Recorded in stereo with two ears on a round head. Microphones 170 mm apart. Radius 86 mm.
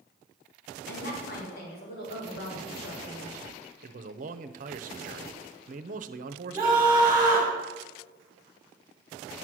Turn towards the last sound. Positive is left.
turn(degrees=-25)  # may be behind; listen again after turning